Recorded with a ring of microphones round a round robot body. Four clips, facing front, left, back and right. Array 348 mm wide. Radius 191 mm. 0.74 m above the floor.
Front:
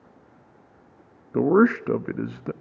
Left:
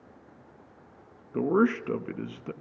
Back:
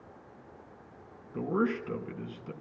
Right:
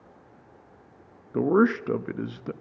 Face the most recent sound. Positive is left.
turn(degrees=-15)